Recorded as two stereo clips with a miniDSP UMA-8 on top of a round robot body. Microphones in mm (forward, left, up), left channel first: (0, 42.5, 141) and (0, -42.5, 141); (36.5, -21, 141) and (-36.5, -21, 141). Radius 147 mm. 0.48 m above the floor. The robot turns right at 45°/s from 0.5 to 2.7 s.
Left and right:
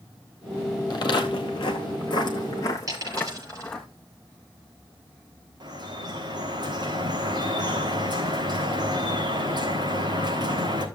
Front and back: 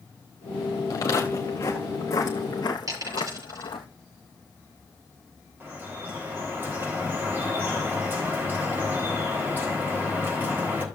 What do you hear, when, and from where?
0.9 s footsteps: 50° left, 0.9 m; by 3.9 s 5° left, 1.0 m
2.9 s a dropped coin: 140° right, 6.5 m
5.6 s dripping: 120° right, 4 m